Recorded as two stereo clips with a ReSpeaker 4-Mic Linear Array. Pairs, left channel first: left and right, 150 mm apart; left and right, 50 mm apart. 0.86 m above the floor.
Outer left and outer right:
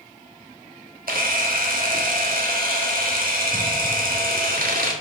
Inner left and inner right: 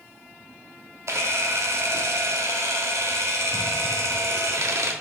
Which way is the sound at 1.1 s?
75° right (ahead or behind).